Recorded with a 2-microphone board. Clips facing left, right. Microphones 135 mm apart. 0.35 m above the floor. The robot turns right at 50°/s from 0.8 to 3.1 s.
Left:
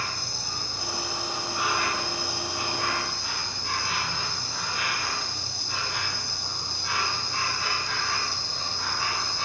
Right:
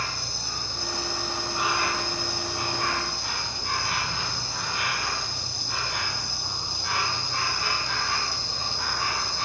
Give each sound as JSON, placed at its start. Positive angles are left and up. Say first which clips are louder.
{"t": 0.0, "sound": "an insect", "louder": "right 1 dB", "azimuth_deg": 165, "distance_m": 1.9}